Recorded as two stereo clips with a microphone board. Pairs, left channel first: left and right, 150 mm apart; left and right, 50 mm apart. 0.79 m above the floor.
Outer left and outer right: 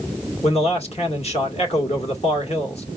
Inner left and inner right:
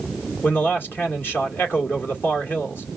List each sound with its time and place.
0.4 s a man speaking: 45° left (ahead or behind), 1.7 m